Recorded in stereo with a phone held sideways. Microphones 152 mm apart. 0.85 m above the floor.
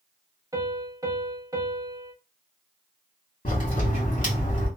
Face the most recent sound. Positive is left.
turn(degrees=60)  # may be behind; listen again after turning